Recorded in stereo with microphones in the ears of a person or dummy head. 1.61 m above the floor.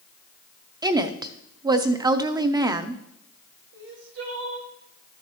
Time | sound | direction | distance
0.8 | a woman speaking | 25° right (ahead or behind) | 0.5 m
3.7 | crying | 80° right | 1.3 m